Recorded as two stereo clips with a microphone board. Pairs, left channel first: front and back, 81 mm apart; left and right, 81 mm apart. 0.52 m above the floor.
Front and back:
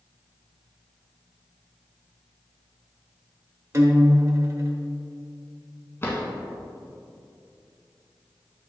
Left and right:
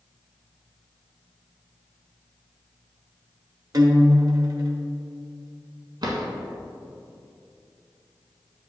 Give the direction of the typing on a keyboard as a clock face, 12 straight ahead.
I don't hear typing on a keyboard.